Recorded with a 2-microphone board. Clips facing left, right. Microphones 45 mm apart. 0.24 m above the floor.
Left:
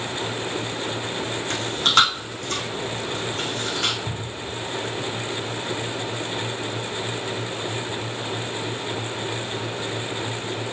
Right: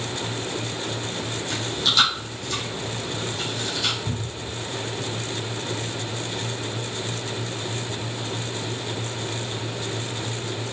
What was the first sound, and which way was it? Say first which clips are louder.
Chewing: left 4 dB; 50° left (ahead or behind).